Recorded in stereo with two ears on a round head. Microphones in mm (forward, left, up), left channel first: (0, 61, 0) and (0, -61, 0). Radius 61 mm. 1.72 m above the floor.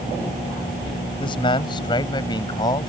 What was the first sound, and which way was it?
A man speaking, 35° left (ahead or behind).